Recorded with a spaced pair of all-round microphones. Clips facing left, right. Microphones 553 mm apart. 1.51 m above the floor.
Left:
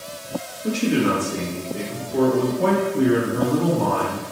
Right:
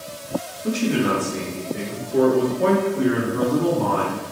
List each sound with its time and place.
0.6 s a man speaking: 10° right (ahead or behind), 3 m; by 4.2 s 65° left (ahead or behind), 2.5 m